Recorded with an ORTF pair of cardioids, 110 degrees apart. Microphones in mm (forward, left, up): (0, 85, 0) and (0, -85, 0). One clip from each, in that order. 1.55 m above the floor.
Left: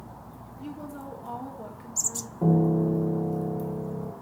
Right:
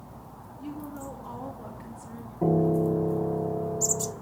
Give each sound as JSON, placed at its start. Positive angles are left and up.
{"t": 0.6, "sound": "a woman speaking", "azimuth_deg": 25, "distance_m": 3.5}
{"t": 2.4, "sound": "a piano", "azimuth_deg": 0, "distance_m": 1.9}